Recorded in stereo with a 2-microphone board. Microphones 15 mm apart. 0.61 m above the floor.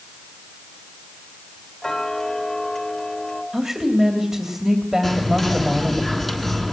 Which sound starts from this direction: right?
A woman speaking, at 3.5 s.